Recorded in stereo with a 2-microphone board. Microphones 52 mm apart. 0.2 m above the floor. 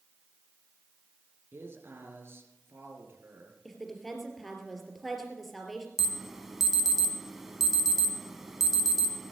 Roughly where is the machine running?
I don't hear a machine running.